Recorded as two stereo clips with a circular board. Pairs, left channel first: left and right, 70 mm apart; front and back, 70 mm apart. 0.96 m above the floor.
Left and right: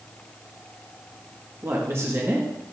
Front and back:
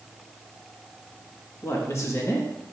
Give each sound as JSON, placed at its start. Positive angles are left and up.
{"t": 1.6, "sound": "a woman speaking", "azimuth_deg": -45, "distance_m": 1.4}